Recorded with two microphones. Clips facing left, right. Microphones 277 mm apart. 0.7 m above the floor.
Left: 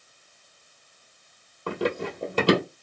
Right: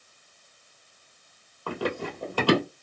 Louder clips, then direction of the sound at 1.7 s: Left 3 dB; 20° left (ahead or behind).